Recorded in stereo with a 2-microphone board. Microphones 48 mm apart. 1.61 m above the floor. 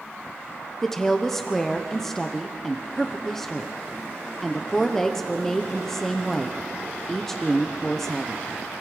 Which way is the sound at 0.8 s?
5° left (ahead or behind).